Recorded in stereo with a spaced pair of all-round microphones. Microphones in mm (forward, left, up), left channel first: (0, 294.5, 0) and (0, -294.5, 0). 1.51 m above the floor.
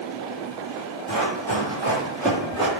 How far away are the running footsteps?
About 1.9 m.